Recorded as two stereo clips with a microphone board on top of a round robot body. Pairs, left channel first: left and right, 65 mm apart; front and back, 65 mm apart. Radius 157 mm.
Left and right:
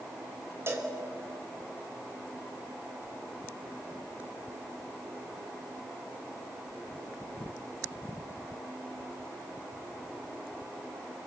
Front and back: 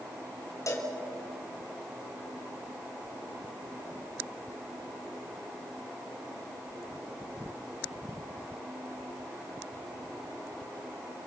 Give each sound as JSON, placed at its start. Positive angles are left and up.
{"t": 0.7, "sound": "a cowbell", "azimuth_deg": -40, "distance_m": 3.5}